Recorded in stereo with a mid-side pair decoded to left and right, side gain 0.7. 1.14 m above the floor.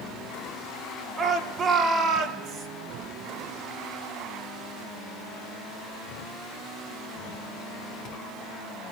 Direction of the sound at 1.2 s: 30° right.